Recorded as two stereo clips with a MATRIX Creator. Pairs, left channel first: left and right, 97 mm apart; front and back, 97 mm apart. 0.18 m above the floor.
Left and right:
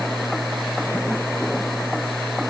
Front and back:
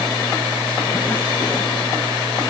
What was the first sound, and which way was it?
Only background noise.